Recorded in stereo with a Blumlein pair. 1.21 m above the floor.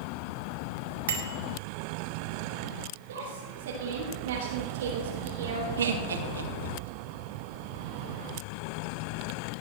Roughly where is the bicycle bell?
Ahead right.